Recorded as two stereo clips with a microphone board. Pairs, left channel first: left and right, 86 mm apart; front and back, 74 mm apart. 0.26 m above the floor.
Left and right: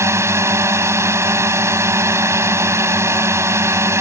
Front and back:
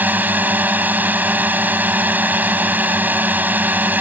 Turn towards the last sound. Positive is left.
turn(degrees=-125)